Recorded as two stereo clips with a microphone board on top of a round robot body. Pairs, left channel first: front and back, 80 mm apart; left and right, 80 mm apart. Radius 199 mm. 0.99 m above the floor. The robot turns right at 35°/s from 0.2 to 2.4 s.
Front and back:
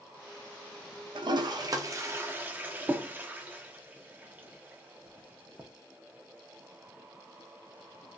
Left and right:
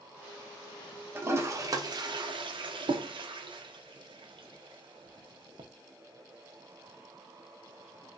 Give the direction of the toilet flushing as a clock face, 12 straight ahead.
5 o'clock.